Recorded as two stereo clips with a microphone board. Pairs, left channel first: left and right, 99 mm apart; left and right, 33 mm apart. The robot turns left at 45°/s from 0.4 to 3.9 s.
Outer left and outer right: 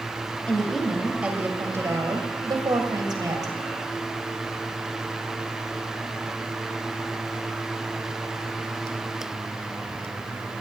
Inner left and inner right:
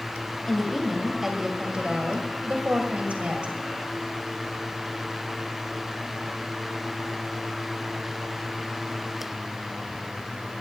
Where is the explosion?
No explosion in this recording.